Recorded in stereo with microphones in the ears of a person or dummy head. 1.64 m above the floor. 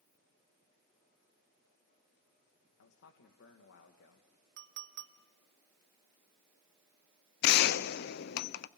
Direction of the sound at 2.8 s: 75° left (ahead or behind).